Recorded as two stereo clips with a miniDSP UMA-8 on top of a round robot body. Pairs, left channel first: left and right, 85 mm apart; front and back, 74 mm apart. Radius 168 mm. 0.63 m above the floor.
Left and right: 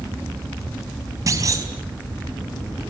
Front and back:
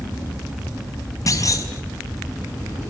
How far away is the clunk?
About 4.5 m.